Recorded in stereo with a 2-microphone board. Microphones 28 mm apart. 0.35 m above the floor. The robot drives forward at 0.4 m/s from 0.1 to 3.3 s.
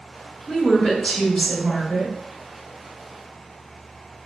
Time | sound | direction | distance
0.5 | a woman speaking | 25° left (ahead or behind) | 1.7 m